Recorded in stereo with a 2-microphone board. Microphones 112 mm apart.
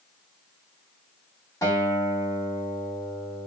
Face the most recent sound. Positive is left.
turn(degrees=35)  # may be behind; listen again after turning